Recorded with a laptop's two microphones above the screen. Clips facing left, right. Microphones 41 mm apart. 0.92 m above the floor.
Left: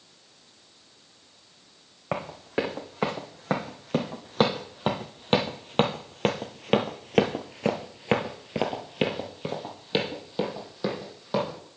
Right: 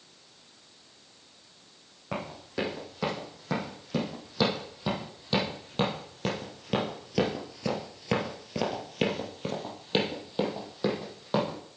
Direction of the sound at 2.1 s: 40° left (ahead or behind).